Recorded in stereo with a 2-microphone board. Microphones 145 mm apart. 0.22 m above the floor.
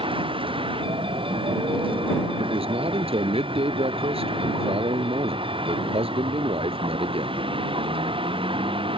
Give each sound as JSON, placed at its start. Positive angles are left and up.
{"t": 0.0, "sound": "a vehicle", "side_deg": -35}
{"t": 2.4, "sound": "a man speaking", "side_deg": -40}